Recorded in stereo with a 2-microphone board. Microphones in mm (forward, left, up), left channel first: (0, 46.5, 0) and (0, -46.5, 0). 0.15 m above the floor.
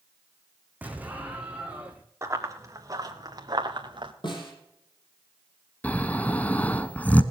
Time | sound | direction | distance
0.8 | an explosion | 15° right (ahead or behind) | 1.9 m
2.2 | running footsteps | 35° right (ahead or behind) | 3 m
4.2 | a snare drum | 55° left (ahead or behind) | 6 m
5.8 | snoring | 15° left (ahead or behind) | 0.9 m